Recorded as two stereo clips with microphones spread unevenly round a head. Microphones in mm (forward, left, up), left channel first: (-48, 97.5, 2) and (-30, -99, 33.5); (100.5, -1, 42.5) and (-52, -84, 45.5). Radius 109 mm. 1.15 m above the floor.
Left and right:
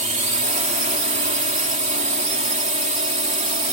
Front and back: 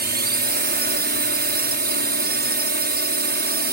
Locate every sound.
0.0 s a drone: 135° right